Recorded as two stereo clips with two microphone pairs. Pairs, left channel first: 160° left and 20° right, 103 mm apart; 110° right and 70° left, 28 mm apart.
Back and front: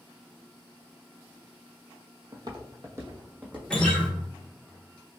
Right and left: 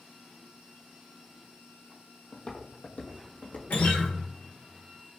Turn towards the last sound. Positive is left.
turn(degrees=-120)